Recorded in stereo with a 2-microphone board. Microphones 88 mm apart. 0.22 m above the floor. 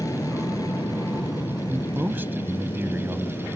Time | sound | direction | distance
0.0 | an aircraft | 40° left (ahead or behind) | ?
1.7 | a man speaking | 20° right (ahead or behind) | ?